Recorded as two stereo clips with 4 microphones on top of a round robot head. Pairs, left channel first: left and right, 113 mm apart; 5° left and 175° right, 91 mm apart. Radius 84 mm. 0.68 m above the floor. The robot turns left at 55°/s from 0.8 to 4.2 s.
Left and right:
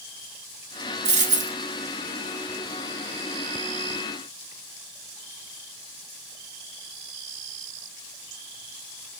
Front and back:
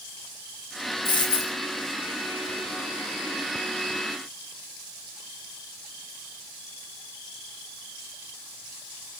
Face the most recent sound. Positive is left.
turn(degrees=120)